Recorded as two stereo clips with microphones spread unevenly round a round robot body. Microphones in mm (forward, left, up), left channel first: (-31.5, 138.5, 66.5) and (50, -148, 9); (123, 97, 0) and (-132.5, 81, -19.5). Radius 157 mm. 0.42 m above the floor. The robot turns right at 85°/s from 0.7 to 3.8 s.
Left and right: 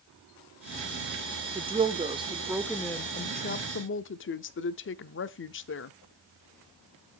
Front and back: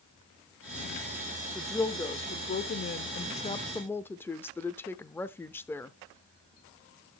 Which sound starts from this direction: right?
A woman speaking, at 1.6 s.